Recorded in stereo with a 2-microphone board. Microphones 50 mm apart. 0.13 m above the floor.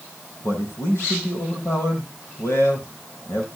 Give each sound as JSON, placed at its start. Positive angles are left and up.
{"t": 0.4, "sound": "a man speaking", "side_deg": 75, "distance_m": 5.5}